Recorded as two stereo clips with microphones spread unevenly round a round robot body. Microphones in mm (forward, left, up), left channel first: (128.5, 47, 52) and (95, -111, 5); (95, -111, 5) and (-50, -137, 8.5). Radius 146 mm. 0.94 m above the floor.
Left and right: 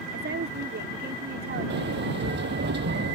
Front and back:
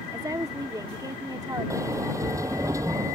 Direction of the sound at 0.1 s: 105° right.